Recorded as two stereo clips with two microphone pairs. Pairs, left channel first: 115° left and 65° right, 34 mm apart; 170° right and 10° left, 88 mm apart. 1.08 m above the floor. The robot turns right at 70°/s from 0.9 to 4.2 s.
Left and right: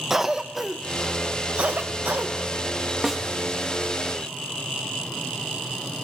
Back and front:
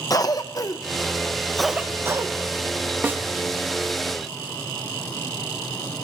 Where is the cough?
135° right, 0.5 m; by 2.3 s 35° right, 0.5 m.